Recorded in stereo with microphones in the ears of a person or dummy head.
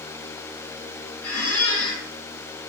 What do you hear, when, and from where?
1.2 s a squeak: 10° left (ahead or behind), 0.8 m